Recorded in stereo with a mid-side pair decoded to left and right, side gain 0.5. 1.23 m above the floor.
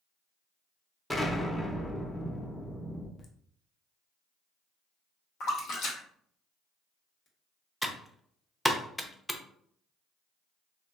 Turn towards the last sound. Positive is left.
turn(degrees=5)